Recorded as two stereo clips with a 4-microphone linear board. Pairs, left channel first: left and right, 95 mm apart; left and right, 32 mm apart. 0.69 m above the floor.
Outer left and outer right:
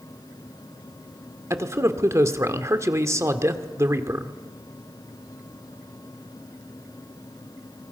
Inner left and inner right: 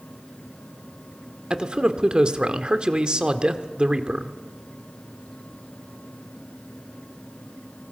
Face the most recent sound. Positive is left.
turn(degrees=-30)  # may be behind; listen again after turning